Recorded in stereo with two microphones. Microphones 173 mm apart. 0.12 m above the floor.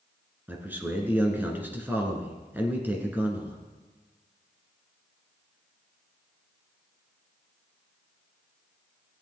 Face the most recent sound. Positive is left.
turn(degrees=-10)  # may be behind; listen again after turning